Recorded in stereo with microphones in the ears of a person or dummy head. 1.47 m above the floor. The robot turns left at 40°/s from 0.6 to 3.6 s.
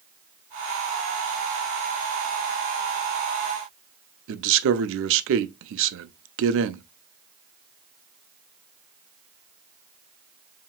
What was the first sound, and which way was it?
A man speaking, 60° right (ahead or behind).